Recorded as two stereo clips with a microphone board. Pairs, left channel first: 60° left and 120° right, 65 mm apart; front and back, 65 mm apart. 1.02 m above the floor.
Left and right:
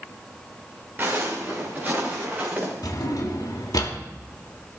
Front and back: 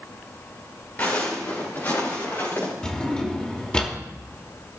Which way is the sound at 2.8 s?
75° left.